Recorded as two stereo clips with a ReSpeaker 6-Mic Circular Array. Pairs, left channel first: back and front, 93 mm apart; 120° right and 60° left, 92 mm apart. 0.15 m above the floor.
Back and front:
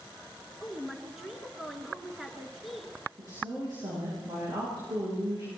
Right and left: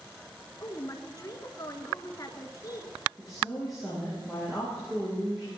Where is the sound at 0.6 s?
90° right, 1.9 m.